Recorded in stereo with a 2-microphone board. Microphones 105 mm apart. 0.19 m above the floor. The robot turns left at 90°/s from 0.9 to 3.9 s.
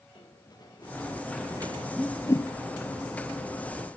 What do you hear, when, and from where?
0.1 s running footsteps: 45° left (ahead or behind), 3.5 m; by 1.9 s 60° right (ahead or behind), 3 m
2.0 s a whoosh: 5° right (ahead or behind), 0.8 m; by 2.5 s 40° left (ahead or behind), 0.8 m